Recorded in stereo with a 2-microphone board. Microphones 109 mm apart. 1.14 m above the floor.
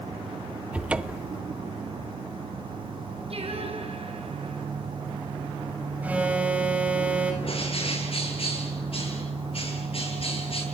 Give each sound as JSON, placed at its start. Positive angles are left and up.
{"t": 0.7, "sound": "a cupboard door", "side_deg": -10, "distance_m": 0.9}
{"t": 3.3, "sound": "singing", "side_deg": -65, "distance_m": 6.0}
{"t": 6.0, "sound": "an alarm", "side_deg": -10, "distance_m": 7.0}
{"t": 7.4, "sound": "a bird", "side_deg": 60, "distance_m": 7.0}